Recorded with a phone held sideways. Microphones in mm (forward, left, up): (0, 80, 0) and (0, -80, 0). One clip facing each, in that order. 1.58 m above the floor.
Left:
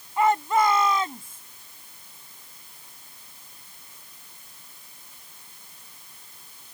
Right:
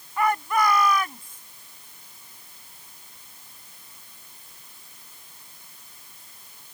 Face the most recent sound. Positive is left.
turn(degrees=25)  # may be behind; listen again after turning